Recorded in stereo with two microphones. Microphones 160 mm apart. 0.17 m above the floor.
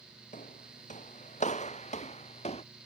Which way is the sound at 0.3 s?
55° left (ahead or behind).